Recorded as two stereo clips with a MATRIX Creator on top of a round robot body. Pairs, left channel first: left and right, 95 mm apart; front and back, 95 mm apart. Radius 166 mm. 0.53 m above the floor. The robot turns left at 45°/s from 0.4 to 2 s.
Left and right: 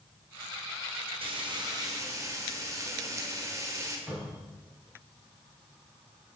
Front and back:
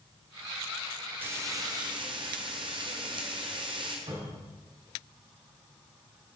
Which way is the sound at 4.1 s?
165° right.